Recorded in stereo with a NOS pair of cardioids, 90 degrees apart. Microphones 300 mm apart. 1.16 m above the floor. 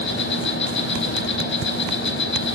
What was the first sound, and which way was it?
An insect, 40° left.